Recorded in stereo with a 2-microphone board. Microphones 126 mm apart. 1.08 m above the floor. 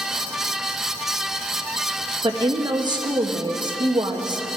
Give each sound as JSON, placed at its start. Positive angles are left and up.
{"t": 2.2, "sound": "a woman speaking", "side_deg": -35, "distance_m": 1.2}